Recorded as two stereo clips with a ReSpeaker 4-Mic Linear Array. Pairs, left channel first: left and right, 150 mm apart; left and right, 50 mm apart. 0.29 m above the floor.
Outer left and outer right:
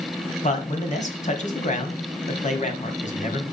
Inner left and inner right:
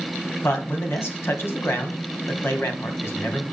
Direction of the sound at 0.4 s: 55° left (ahead or behind).